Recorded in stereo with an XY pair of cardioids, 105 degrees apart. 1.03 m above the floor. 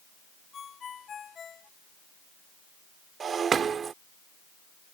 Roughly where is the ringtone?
Ahead left.